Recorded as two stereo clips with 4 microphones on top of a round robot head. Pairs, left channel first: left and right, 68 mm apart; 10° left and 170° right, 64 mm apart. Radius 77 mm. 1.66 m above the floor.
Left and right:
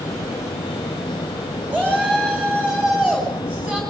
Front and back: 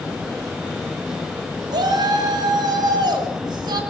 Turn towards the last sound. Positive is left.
turn(degrees=-165)